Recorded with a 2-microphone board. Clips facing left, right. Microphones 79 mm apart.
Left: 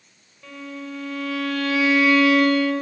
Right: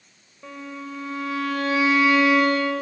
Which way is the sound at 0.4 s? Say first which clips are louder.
Left 1 dB; 25° right (ahead or behind).